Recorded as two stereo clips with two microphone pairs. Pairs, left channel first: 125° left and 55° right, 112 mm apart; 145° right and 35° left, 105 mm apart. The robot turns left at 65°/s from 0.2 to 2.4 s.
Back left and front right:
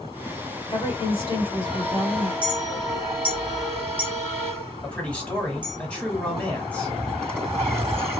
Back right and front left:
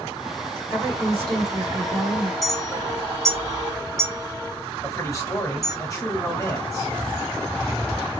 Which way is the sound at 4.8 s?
160° right.